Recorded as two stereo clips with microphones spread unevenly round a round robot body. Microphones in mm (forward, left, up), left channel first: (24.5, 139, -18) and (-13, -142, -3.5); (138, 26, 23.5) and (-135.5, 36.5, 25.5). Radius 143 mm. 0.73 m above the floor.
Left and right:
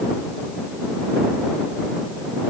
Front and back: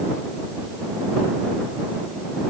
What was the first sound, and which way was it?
Only background noise.